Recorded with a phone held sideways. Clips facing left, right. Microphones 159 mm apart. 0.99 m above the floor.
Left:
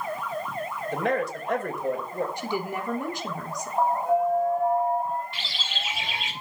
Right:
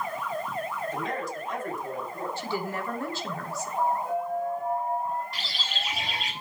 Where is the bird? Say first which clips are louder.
Even; 40° right (ahead or behind), 5 m.